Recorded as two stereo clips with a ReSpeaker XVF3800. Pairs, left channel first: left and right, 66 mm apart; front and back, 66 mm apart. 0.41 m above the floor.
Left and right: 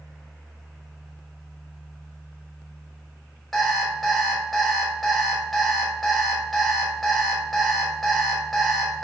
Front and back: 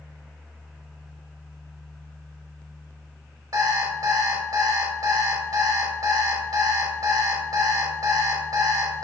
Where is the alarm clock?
175° left, 1.0 m.